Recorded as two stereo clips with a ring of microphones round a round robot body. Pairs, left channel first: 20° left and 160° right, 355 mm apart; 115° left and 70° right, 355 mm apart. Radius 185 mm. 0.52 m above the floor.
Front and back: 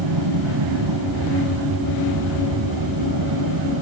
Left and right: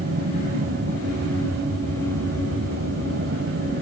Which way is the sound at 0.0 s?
130° right.